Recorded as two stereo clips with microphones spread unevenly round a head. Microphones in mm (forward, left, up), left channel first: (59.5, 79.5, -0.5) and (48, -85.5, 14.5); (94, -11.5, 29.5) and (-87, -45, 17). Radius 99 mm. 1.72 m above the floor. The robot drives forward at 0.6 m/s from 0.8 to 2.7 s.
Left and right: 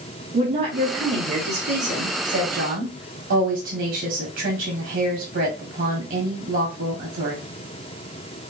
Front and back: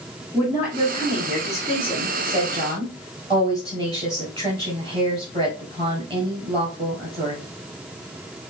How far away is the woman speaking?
About 1.7 m.